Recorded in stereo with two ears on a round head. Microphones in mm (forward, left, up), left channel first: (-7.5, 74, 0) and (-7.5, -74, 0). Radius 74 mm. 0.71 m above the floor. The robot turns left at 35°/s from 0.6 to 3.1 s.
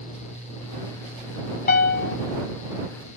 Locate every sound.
1.7 s a piano: 60° left (ahead or behind); by 2.2 s 75° left (ahead or behind)